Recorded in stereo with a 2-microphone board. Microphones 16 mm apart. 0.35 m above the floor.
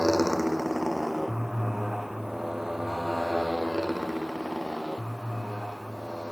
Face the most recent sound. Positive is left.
turn(degrees=-35)  # may be behind; listen again after turning